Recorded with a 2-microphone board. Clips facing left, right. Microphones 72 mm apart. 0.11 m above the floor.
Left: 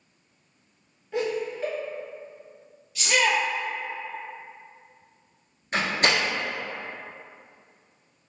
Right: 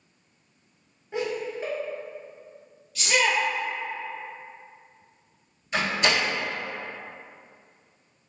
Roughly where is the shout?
Centre.